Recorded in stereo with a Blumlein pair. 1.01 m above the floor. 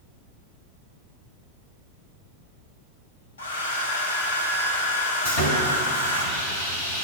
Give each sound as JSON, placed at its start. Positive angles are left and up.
{"t": 3.4, "sound": "a hair dryer", "azimuth_deg": 65, "distance_m": 1.0}
{"t": 5.2, "sound": "sawing", "azimuth_deg": 60, "distance_m": 1.8}